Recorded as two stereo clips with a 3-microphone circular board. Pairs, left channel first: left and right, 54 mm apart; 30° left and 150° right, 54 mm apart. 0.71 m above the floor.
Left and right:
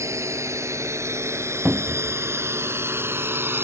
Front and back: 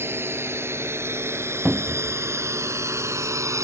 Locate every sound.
0.0 s a drone: 110° right; by 3.6 s 130° right
1.6 s a cupboard door: 110° right